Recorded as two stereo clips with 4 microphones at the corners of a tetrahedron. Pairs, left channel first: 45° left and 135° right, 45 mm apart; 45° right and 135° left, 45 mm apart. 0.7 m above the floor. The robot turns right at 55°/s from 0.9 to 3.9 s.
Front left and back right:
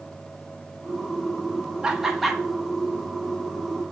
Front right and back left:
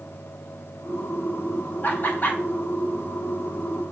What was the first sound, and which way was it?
Laughter, 70° right.